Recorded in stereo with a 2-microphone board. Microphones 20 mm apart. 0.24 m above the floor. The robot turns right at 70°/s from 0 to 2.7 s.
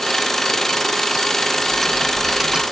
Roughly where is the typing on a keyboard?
Behind left.